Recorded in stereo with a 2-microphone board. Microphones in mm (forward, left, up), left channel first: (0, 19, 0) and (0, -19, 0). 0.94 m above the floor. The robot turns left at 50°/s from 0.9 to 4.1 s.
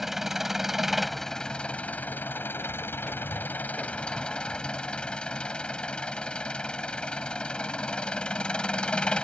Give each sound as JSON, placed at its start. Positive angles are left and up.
{"t": 0.0, "sound": "an engine running", "azimuth_deg": -170}